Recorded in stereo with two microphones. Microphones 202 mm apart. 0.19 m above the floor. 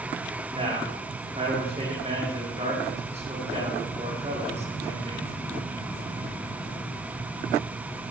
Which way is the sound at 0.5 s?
30° right (ahead or behind).